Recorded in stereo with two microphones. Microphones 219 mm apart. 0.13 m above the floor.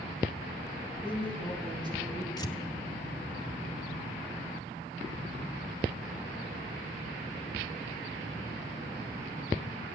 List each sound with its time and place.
1.0 s a woman speaking: 25° right (ahead or behind), 5 m; by 2.3 s 15° right (ahead or behind), 4.5 m
2.4 s tearing paper: 15° left (ahead or behind), 0.9 m